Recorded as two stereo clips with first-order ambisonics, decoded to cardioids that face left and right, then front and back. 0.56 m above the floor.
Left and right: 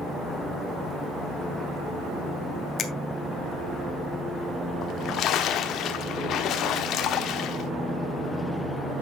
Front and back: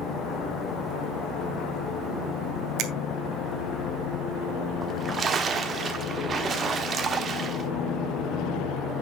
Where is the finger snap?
150° left, 1.3 m.